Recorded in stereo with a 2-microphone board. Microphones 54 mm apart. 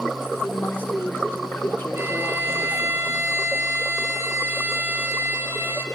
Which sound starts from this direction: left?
A woman speaking, at 0.4 s.